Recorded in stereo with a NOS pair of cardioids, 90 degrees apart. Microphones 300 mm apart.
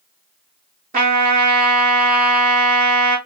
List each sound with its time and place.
0.9 s a trumpet: 25° right, 3 m